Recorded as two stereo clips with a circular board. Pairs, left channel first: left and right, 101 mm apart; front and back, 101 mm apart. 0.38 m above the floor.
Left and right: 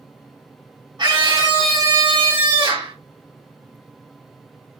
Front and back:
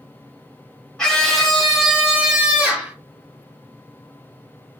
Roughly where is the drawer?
No drawer in this recording.